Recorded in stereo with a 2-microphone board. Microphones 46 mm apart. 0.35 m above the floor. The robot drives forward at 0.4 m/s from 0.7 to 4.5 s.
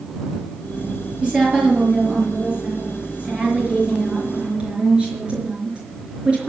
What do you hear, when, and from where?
1.2 s a woman speaking: 20° right (ahead or behind), 5.5 m; by 6.5 s 25° right (ahead or behind), 4.5 m